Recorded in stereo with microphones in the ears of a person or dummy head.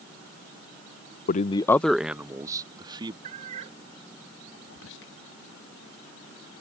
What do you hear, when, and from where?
1.3 s a man speaking: 45° left (ahead or behind); by 3.1 s 25° right (ahead or behind)
3.2 s a cat meowing: 45° right (ahead or behind)
4.7 s whispering: 70° left (ahead or behind)